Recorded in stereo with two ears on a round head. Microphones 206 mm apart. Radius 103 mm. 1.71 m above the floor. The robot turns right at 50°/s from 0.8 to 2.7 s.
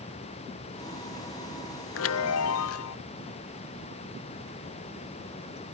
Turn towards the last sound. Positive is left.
turn(degrees=105)